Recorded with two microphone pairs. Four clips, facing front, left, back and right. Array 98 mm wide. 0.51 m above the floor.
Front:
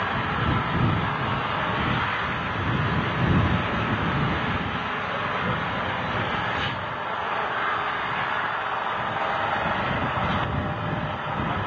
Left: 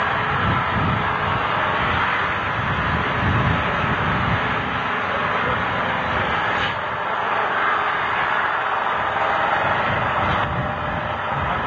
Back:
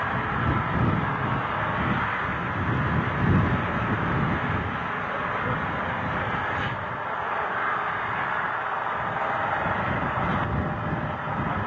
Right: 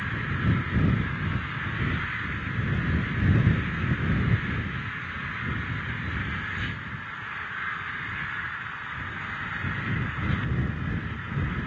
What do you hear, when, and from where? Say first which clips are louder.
0.0 s an engine running: left 10 dB, front 1 dB; 90° left